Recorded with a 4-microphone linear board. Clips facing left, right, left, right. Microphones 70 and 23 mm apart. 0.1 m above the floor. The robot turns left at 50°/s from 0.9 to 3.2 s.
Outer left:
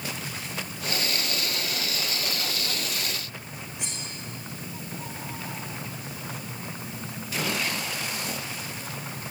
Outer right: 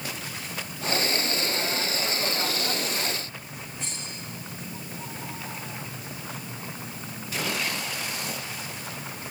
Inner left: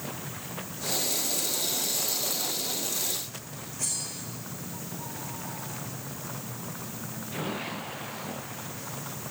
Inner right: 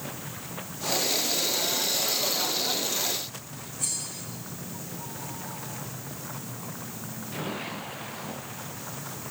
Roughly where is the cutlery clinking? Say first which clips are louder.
Even, inner right 1 dB; left.